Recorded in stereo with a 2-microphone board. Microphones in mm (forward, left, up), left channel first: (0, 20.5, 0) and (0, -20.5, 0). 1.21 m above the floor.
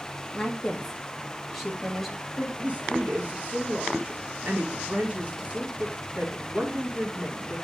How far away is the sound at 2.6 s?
About 1.7 m.